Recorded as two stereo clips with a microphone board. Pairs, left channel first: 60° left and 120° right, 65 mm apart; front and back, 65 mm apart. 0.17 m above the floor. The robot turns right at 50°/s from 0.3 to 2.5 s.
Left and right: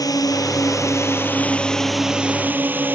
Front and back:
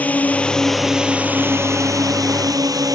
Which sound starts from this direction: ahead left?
A drone, at 0.0 s.